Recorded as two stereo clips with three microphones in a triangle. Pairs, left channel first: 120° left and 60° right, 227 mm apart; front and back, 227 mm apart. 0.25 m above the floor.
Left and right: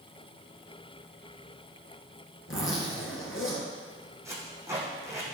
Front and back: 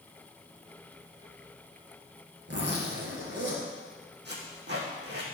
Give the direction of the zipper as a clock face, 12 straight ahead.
7 o'clock.